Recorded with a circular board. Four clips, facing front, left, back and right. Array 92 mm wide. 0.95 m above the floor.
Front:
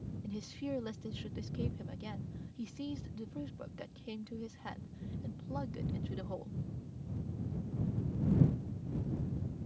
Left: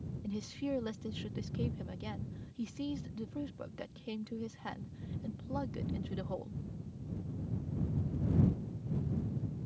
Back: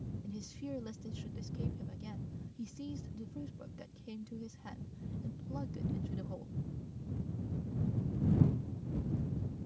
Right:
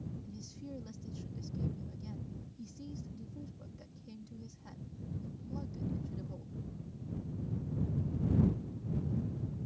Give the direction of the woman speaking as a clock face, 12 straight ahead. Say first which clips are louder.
Left 10 dB, front 5 dB; 10 o'clock.